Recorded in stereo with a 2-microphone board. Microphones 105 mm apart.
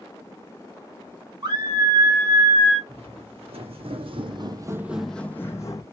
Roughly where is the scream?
Right.